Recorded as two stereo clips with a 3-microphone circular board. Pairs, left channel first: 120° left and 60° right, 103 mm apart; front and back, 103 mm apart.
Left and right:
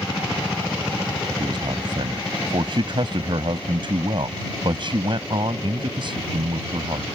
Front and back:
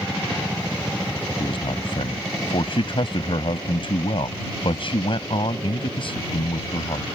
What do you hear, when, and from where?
1.4 s a man speaking: 25° right